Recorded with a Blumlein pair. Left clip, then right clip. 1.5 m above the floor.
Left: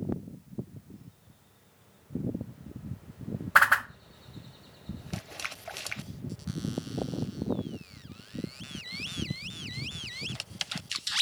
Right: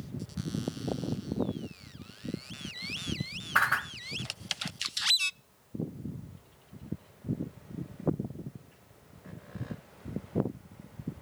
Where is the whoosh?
70° left, 0.7 m.